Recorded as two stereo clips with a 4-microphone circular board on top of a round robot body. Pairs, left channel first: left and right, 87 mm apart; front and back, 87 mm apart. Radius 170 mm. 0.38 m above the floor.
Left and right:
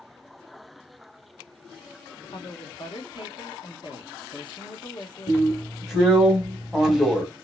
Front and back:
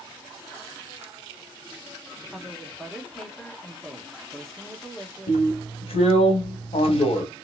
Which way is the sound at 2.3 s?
85° left.